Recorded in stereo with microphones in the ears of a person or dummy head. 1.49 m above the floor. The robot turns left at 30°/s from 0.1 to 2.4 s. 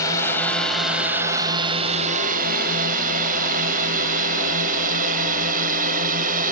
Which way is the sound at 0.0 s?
20° left (ahead or behind).